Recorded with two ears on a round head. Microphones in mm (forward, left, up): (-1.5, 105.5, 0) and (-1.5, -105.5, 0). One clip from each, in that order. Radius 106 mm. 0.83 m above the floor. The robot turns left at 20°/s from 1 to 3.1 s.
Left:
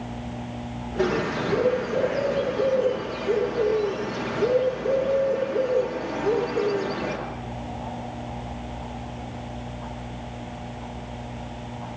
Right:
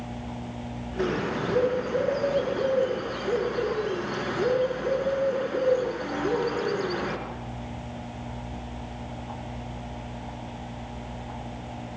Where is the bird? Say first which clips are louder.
Left 3 dB; straight ahead, 5 m; by 7.2 s 40° right, 5 m.